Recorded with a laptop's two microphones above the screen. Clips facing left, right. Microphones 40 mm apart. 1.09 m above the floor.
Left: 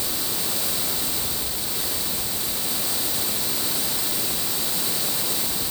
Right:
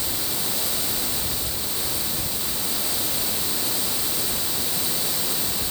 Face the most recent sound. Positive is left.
No sound to turn to.